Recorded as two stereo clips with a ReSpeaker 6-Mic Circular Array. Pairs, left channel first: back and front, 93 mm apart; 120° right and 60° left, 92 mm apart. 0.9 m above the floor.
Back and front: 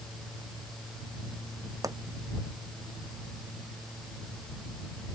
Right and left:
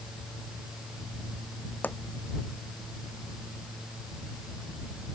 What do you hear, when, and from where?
1.8 s a pop: 50° right